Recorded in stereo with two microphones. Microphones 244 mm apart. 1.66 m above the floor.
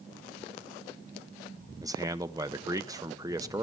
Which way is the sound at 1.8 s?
15° right (ahead or behind).